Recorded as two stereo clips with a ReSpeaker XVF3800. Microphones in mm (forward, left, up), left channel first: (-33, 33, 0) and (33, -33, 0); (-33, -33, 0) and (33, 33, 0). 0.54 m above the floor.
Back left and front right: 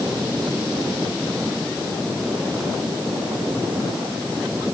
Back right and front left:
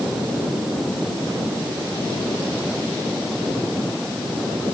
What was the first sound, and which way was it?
Only background noise.